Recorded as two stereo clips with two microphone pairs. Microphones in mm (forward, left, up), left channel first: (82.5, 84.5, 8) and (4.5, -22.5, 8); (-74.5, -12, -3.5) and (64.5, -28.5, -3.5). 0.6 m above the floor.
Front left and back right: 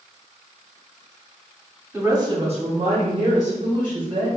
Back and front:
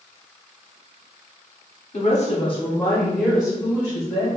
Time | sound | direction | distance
1.9 | a woman speaking | 165° left | 1.2 m